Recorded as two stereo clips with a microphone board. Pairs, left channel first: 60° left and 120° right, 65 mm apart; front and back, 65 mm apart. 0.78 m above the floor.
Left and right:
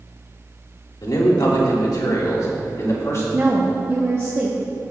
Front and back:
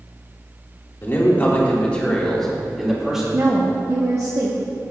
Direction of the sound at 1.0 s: 55° left.